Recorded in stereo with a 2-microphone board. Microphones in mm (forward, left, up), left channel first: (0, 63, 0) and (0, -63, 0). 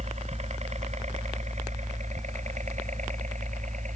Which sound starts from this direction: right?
A helicopter, at 0.0 s.